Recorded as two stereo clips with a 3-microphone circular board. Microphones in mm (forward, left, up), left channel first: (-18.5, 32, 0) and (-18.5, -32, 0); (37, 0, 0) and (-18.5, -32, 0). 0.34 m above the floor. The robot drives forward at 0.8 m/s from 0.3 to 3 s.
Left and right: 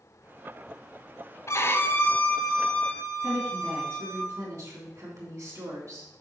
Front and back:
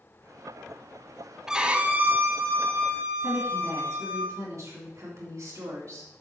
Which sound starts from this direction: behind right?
A woman speaking, at 3.2 s.